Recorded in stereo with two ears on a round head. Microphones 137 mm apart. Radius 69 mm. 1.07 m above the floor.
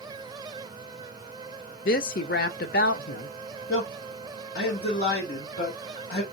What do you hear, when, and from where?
1.9 s a woman speaking: 65° left (ahead or behind), 0.7 m
3.7 s a man speaking: 70° left (ahead or behind), 2 m